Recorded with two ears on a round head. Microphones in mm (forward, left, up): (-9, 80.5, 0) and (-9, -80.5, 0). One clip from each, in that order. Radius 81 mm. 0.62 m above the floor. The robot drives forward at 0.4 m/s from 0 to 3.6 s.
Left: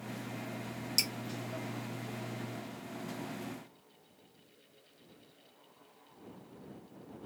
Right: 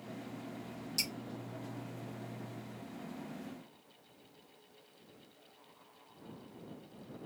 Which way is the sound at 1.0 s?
30° left (ahead or behind).